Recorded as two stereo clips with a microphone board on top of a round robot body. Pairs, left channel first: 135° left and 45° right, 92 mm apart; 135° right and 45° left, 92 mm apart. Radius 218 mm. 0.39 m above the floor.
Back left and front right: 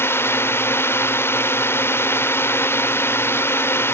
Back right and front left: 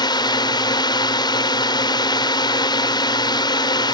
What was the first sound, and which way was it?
A drone, 165° right.